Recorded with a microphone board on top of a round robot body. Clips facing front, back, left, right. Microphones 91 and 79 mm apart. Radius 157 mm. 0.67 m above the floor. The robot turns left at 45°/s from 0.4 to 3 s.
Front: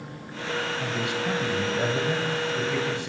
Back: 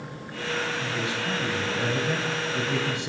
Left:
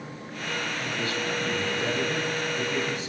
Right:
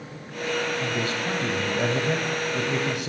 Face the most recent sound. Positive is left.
turn(degrees=-110)